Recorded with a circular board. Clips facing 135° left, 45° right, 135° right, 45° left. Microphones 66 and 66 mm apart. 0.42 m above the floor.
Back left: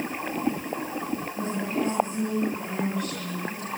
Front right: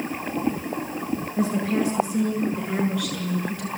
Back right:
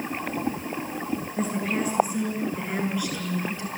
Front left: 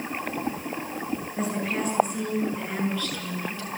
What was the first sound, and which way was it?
A woman speaking, 40° right.